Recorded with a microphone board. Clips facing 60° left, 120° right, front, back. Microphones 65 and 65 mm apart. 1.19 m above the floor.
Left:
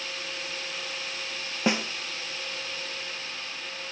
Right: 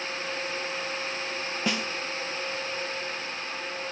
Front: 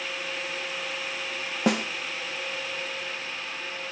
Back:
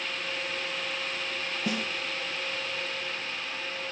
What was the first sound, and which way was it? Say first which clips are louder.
A snare drum: left 4 dB, front 8 dB; 5° right.